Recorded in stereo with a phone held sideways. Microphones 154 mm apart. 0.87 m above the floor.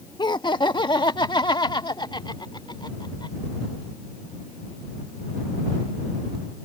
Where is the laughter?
30° left (ahead or behind).